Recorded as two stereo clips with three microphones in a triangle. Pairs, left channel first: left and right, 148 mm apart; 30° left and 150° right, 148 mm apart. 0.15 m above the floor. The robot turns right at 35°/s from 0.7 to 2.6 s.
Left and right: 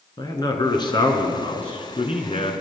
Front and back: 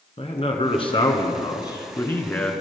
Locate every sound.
0.2 s a man speaking: 45° left, 2 m; by 2.5 s 110° left, 2 m